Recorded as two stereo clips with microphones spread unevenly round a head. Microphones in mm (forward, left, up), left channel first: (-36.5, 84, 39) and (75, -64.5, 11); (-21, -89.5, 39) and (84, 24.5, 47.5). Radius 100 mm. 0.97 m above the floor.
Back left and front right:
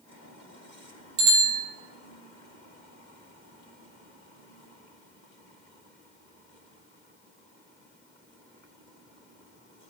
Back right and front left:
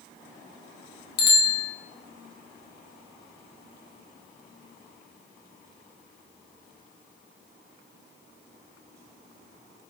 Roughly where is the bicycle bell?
Right.